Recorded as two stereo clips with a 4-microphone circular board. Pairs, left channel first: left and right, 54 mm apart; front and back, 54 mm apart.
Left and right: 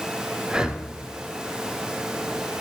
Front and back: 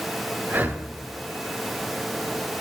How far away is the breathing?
About 0.9 m.